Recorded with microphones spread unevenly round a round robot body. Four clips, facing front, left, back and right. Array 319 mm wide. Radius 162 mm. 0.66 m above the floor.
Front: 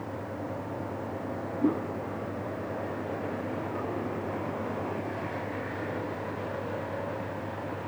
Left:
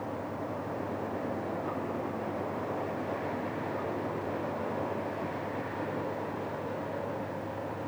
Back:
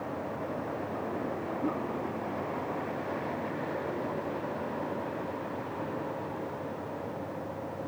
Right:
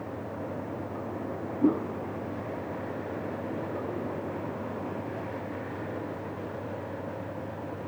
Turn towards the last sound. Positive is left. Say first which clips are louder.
# right 9 dB, front 7 dB
turn(degrees=-70)